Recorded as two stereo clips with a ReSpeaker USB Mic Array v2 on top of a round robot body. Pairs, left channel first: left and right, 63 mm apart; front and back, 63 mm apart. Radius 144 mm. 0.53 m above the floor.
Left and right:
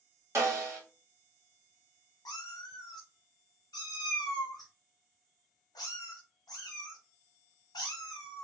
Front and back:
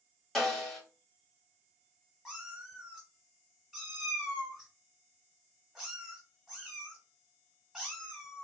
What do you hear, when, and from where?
0.3 s a snare drum: 85° right, 1.7 m
2.2 s a cat meowing: 95° left, 0.9 m